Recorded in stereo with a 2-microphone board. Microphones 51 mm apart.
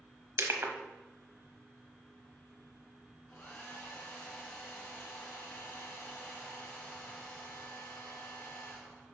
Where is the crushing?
60° right (ahead or behind), 1.0 m.